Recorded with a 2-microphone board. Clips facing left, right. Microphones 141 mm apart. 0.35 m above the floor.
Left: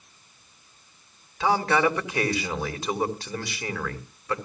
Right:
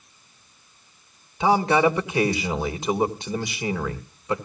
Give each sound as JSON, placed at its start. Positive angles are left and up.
{"t": 1.4, "sound": "a man speaking", "side_deg": -20, "distance_m": 1.6}